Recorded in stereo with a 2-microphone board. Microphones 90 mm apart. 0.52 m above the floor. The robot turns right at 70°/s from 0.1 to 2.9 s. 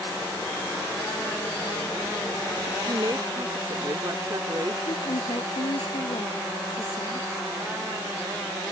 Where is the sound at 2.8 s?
50° right (ahead or behind); by 4.8 s 45° right (ahead or behind).